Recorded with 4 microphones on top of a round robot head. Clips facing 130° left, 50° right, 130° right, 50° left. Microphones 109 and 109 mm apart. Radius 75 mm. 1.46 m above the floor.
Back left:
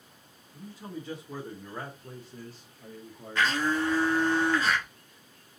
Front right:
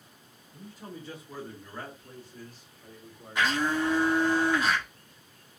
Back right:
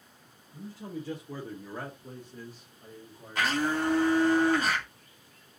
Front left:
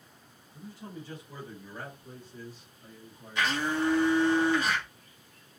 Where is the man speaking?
135° right, 1.4 m; by 3.6 s 145° left, 1.2 m.